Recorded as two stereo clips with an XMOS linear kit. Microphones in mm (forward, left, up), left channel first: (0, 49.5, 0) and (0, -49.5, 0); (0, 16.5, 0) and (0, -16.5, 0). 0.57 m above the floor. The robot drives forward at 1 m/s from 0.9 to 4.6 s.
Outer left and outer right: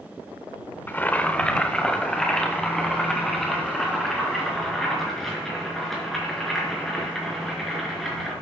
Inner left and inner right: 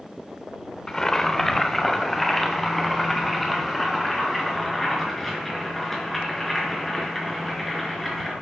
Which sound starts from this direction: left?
Boiling, at 0.9 s.